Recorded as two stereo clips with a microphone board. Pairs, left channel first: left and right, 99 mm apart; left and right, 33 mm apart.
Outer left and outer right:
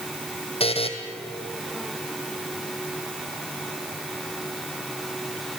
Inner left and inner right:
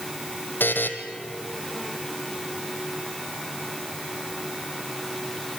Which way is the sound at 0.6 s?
80° left.